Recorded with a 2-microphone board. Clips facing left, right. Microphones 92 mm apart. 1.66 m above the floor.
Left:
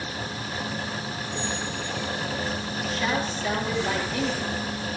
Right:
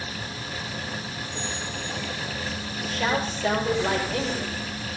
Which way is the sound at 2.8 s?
75° right (ahead or behind).